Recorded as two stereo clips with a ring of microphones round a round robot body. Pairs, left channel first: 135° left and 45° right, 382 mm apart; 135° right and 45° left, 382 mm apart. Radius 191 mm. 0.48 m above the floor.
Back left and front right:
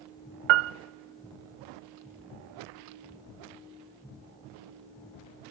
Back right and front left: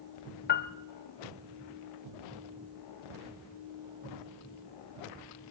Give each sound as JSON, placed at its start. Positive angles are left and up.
{"t": 0.5, "sound": "a piano", "azimuth_deg": -70, "distance_m": 0.6}